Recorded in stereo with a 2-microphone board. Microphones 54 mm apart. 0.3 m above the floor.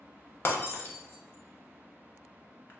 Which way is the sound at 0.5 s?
40° left (ahead or behind).